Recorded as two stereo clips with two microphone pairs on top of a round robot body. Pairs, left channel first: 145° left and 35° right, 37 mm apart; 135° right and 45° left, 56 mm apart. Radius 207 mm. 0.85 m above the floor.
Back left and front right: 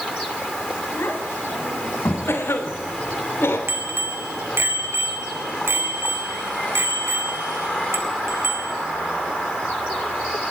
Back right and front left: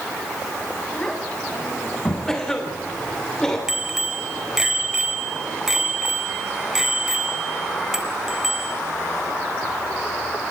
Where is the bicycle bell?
40° right, 3.5 m.